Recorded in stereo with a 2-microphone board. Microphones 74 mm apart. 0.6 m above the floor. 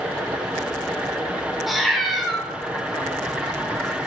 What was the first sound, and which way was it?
A cat meowing, centre (ahead or behind).